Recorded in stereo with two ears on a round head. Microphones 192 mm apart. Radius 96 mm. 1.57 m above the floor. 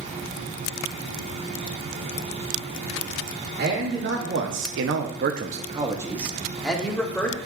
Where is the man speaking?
45° right (ahead or behind), 1.5 m; by 7.4 s 10° left (ahead or behind), 1.9 m.